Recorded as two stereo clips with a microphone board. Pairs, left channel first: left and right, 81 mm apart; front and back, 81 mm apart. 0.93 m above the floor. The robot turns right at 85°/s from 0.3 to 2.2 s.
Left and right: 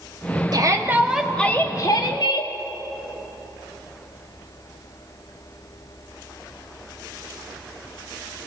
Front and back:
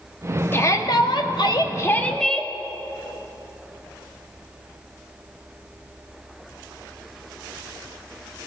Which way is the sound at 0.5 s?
60° right.